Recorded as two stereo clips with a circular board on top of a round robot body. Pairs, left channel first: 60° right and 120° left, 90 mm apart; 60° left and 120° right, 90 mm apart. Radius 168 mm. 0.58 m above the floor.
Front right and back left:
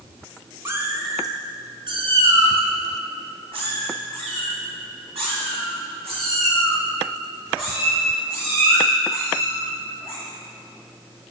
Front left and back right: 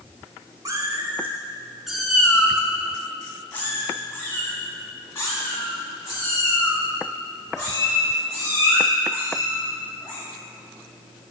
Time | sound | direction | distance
0.7 | a cat meowing | 175° right | 1.0 m